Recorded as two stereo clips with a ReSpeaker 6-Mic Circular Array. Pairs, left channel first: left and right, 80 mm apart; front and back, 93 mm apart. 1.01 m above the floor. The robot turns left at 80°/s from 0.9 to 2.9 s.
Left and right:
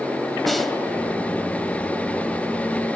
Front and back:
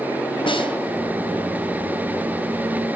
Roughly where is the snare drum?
Ahead.